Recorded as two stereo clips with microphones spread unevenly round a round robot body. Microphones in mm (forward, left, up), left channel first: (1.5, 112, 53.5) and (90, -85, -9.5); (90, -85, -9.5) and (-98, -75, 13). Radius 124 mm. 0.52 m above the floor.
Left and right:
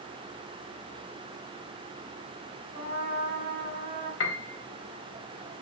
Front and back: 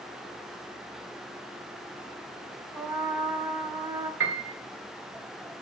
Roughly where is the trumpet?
Right.